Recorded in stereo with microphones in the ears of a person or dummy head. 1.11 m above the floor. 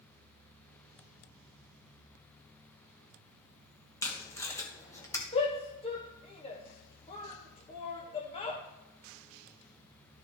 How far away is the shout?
About 1.3 m.